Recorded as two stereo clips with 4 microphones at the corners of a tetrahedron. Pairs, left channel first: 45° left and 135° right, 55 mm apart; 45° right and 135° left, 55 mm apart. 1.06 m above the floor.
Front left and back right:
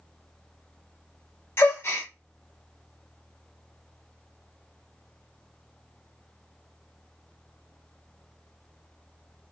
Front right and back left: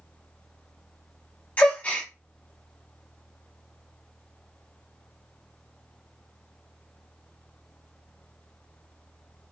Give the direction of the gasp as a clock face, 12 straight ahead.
12 o'clock.